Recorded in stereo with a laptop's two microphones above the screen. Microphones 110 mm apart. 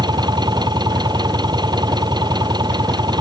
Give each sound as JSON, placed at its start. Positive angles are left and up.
{"t": 0.0, "sound": "an engine running", "side_deg": -40}